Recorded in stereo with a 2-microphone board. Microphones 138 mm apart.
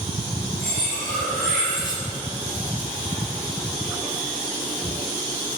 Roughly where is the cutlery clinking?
Left.